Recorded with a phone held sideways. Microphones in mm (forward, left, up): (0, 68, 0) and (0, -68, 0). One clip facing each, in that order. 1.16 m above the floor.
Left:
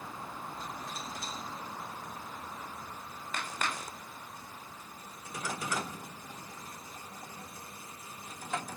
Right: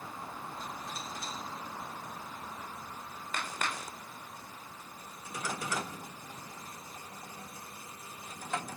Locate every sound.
Only background noise.